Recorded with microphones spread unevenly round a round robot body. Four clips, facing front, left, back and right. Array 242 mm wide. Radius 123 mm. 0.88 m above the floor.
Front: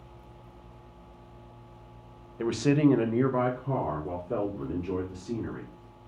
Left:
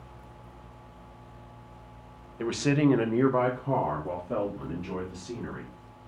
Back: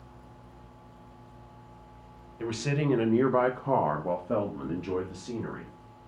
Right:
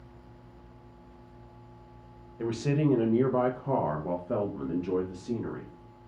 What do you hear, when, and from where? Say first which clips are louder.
2.4 s a man speaking: left 3 dB, front 7 dB; 40° left, 0.6 m; by 6.1 s 160° right, 1.8 m